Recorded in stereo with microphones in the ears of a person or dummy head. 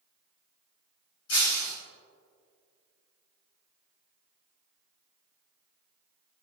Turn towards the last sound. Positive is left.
turn(degrees=85)